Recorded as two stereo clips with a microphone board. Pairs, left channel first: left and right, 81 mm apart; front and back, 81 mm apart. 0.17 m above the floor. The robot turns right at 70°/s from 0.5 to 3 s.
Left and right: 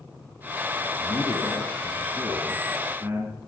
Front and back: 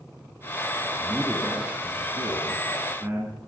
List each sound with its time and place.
1.0 s a man speaking: 90° left, 2 m; by 3.4 s 130° right, 2 m